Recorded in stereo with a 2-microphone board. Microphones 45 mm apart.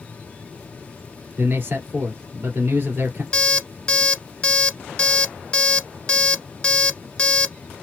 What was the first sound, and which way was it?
A man speaking, 45° right (ahead or behind).